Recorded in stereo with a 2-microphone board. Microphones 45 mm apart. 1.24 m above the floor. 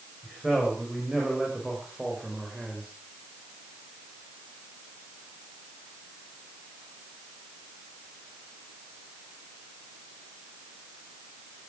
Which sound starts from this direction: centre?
A man speaking, at 0.2 s.